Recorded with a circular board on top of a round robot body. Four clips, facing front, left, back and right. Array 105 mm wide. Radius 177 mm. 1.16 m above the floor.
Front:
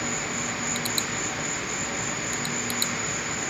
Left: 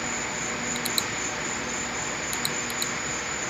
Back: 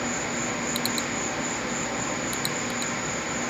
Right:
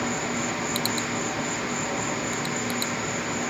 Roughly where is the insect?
Right.